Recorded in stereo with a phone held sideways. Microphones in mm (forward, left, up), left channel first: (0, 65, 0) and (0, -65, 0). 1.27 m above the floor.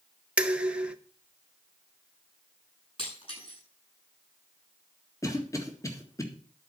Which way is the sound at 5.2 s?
25° left (ahead or behind).